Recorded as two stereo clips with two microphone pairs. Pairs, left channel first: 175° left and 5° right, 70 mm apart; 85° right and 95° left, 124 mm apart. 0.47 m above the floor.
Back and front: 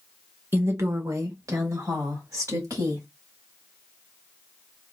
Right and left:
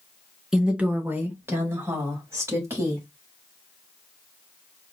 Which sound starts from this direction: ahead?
A woman speaking, at 0.5 s.